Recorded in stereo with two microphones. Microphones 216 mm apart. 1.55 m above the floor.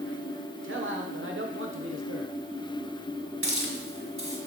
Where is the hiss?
75° right (ahead or behind), 1.7 m.